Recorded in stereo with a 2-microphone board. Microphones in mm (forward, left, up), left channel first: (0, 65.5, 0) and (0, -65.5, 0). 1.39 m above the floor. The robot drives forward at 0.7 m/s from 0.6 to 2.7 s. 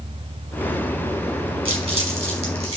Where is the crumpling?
45° right (ahead or behind), 5 m; by 2.8 s 50° right (ahead or behind), 4.5 m.